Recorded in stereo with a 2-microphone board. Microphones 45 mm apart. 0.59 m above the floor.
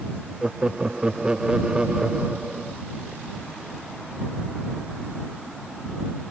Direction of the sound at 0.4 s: 20° right (ahead or behind).